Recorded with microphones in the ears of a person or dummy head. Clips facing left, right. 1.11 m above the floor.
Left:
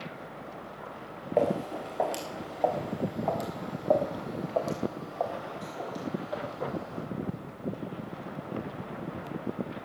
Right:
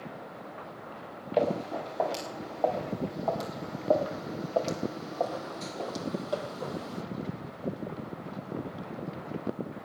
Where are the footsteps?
15° left (ahead or behind), 4.5 m; by 7.0 s 55° right (ahead or behind), 2.5 m.